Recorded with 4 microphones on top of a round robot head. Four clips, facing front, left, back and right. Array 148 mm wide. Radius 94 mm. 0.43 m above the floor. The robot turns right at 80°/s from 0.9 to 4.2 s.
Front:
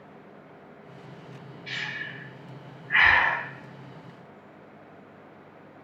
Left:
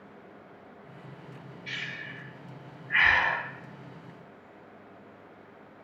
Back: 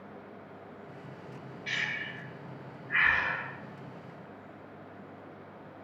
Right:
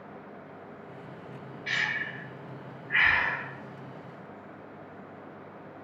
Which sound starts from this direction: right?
Breathing, at 1.7 s.